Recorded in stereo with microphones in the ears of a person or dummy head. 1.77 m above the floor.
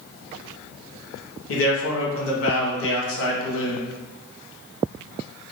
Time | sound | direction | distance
1.5 | a man speaking | 80° left | 1.2 m